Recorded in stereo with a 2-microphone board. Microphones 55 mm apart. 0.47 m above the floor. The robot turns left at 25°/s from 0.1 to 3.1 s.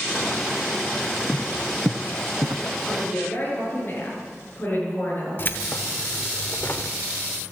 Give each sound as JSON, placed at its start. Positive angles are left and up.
{"t": 1.3, "sound": "footsteps", "side_deg": 15, "distance_m": 0.5}
{"t": 2.9, "sound": "a woman speaking", "side_deg": 35, "distance_m": 7.0}
{"t": 5.4, "sound": "keys jangling", "side_deg": 40, "distance_m": 0.9}